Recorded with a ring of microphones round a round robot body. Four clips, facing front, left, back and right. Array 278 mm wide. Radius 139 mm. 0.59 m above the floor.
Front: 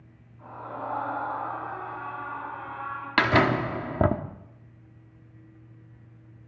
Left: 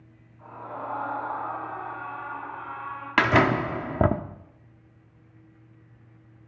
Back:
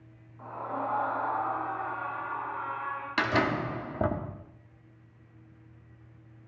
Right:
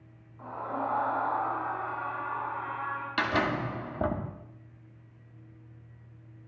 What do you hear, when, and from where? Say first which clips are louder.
0.4 s a scream: right 3 dB, back 2 dB; 135° right, 6 m; by 3.1 s 125° right, 5 m
3.2 s a door slam: left 8 dB, front 6 dB; 60° left, 0.9 m